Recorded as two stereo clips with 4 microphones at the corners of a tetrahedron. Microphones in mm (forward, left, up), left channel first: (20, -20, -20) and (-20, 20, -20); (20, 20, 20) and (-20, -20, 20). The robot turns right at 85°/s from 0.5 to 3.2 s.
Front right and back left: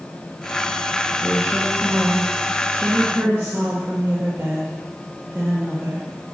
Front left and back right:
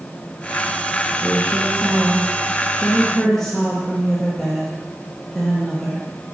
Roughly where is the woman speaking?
Ahead right.